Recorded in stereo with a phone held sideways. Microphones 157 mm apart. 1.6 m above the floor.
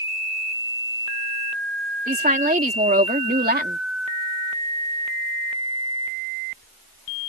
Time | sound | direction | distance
2.1 | a woman speaking | 55° right (ahead or behind) | ?